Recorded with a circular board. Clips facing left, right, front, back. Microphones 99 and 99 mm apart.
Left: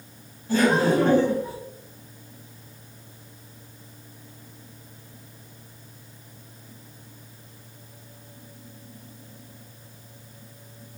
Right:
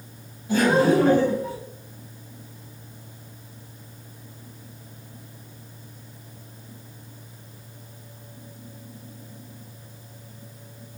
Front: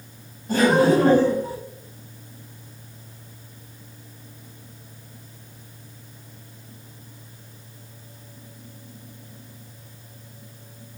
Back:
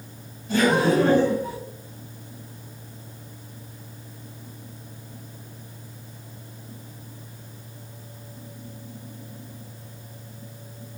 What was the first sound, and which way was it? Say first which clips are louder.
Laughter: right 2 dB, front 3 dB; 25° right.